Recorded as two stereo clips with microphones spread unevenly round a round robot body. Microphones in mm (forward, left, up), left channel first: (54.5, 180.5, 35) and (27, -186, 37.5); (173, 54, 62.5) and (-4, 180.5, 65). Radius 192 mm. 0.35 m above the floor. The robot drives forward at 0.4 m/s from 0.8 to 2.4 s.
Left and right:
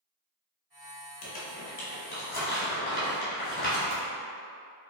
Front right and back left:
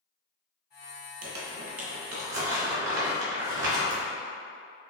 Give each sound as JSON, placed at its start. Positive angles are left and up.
{"t": 1.2, "sound": "crumpling", "azimuth_deg": 135, "distance_m": 0.7}